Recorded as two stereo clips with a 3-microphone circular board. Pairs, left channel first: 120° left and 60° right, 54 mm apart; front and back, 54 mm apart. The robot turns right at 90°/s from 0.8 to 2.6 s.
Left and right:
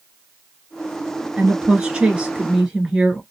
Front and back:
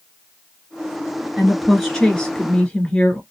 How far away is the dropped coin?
No dropped coin in this recording.